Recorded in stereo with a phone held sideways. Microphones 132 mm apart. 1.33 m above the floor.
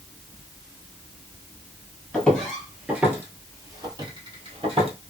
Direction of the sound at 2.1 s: 10° left (ahead or behind).